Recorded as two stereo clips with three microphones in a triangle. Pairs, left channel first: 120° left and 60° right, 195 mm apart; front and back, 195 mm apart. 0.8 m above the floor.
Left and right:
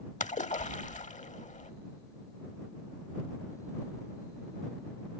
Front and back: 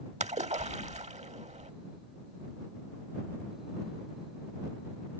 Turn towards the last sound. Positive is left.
turn(degrees=145)